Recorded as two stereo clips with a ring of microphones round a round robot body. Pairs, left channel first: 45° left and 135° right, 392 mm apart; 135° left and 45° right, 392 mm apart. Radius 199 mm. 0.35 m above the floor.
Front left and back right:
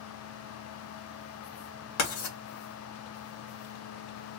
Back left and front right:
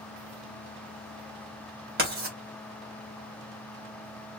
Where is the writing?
10° left, 2 m.